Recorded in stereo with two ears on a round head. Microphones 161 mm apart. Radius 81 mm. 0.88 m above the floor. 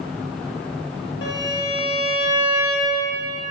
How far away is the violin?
About 1.5 m.